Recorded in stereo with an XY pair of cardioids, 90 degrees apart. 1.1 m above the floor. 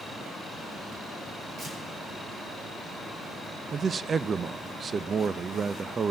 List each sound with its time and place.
1.6 s tearing paper: 50° right, 5 m
3.7 s a man speaking: 45° right, 0.6 m